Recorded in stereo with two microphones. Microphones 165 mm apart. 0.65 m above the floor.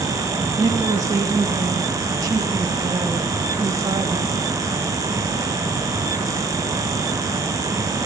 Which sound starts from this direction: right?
A woman speaking, at 0.6 s.